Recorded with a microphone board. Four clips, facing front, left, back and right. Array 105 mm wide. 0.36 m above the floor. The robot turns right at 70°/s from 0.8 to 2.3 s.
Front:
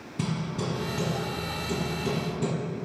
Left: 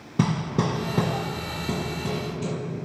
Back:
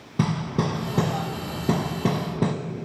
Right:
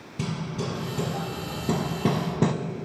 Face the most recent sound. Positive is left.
turn(degrees=-125)